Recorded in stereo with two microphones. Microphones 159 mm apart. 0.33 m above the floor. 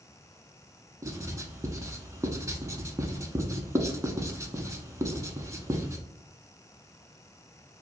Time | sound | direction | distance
1.0 | writing | 20° right (ahead or behind) | 0.5 m